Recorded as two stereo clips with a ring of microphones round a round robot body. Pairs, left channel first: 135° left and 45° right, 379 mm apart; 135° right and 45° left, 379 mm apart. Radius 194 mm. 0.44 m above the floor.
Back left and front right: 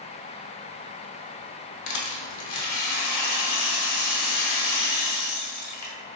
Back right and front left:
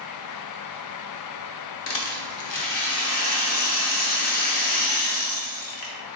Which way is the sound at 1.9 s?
175° left.